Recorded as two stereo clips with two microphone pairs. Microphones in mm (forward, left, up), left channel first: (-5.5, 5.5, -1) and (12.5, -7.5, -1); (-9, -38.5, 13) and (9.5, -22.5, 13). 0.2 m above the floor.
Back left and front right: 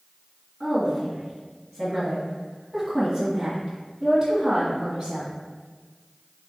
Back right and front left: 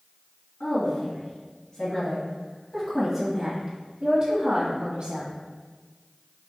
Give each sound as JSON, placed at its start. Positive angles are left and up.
{"t": 0.6, "sound": "a woman speaking", "azimuth_deg": -125, "distance_m": 2.0}